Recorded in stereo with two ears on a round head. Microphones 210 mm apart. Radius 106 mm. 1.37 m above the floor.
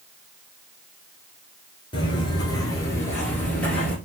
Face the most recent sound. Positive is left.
turn(degrees=5)  # may be behind; listen again after turning